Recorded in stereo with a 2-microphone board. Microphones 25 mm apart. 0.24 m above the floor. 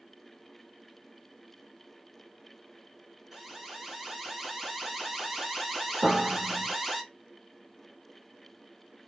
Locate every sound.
3.3 s an alarm: 5° right (ahead or behind), 1.9 m
6.0 s a piano: 30° right (ahead or behind), 1.0 m